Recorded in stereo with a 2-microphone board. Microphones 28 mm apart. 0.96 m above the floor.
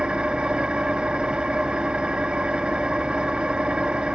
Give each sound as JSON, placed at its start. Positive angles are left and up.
{"t": 0.0, "sound": "an engine running", "side_deg": -35, "distance_m": 0.8}